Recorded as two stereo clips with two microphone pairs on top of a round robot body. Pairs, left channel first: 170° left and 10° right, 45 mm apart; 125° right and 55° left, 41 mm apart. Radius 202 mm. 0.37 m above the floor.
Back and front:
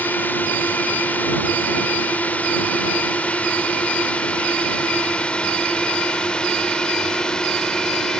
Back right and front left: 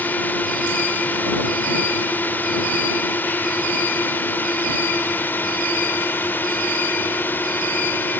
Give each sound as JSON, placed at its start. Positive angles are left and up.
{"t": 0.0, "sound": "a drone", "azimuth_deg": -155}